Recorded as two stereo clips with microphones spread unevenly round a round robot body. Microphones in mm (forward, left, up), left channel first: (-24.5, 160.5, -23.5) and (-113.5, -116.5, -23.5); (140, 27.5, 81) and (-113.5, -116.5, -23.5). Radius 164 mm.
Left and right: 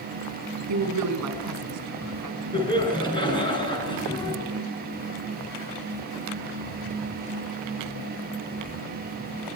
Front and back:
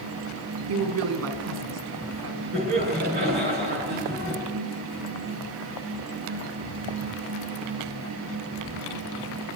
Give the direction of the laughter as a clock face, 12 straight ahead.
7 o'clock.